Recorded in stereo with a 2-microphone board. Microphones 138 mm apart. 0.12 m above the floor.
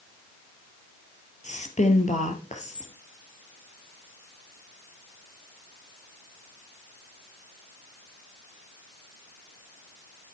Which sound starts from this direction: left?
A woman speaking, at 1.4 s.